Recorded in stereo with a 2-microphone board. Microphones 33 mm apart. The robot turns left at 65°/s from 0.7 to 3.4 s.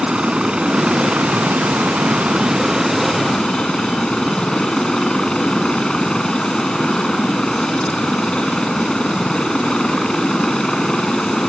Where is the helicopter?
30° right; by 11.5 s 155° left.